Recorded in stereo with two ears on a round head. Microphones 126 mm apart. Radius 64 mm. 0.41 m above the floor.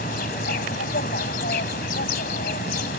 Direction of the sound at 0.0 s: 70° left (ahead or behind).